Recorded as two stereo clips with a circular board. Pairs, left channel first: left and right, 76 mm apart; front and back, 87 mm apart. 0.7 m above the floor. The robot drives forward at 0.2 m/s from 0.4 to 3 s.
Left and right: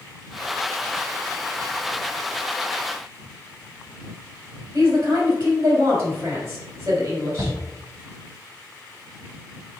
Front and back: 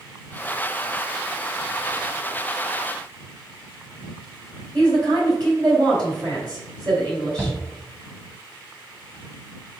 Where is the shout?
115° right, 1.3 m.